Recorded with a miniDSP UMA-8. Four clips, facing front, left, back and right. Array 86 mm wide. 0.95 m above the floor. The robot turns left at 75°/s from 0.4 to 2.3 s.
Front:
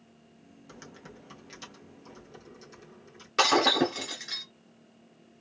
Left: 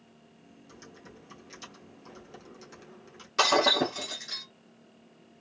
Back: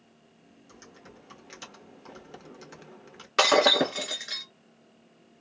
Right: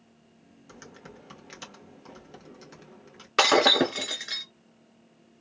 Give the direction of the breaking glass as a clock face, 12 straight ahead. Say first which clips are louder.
Right 3 dB, back 2 dB; 4 o'clock.